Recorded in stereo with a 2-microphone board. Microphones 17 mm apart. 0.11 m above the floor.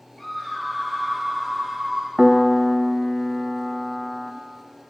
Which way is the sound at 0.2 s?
25° left (ahead or behind).